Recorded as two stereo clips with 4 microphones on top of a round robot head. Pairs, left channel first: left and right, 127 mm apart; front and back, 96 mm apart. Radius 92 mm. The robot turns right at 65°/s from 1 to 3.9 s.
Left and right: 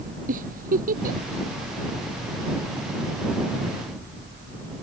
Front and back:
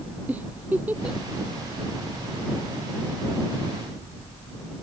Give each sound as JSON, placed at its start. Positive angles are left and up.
{"t": 0.3, "sound": "a giggle", "azimuth_deg": -100}